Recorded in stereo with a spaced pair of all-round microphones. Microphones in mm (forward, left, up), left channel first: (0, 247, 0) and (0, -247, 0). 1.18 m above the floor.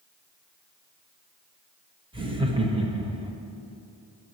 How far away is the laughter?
About 1.0 m.